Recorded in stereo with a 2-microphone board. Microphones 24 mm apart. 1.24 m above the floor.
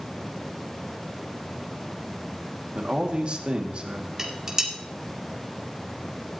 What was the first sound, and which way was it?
A man speaking, 45° right (ahead or behind).